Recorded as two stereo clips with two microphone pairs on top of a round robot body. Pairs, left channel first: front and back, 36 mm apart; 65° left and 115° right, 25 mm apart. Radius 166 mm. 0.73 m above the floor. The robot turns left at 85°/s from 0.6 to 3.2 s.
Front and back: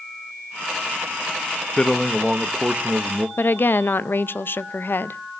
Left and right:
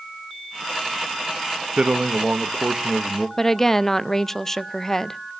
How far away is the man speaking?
About 0.9 m.